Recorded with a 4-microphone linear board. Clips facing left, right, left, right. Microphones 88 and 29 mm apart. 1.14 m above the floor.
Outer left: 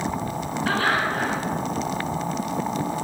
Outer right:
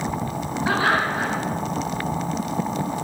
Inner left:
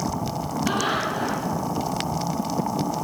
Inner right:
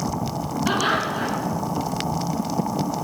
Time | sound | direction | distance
0.7 | laughter | 15° right (ahead or behind) | 5.5 m